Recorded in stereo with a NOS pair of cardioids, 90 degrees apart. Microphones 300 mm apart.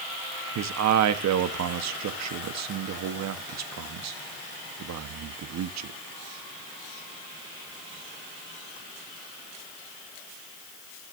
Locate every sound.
0.6 s a man speaking: 60° right, 1.4 m